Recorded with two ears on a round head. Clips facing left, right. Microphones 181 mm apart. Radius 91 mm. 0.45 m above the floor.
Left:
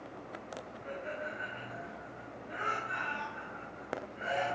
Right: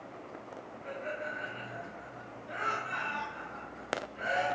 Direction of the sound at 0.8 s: 55° right (ahead or behind).